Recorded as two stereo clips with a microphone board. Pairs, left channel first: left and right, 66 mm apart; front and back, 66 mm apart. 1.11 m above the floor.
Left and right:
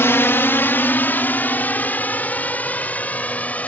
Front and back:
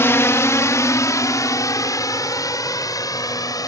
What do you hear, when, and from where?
0.0 s a drone: 45° left; by 3.7 s 20° left